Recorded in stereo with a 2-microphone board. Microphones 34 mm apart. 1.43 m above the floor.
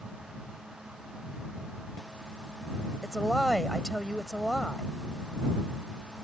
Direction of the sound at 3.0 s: 10° left (ahead or behind).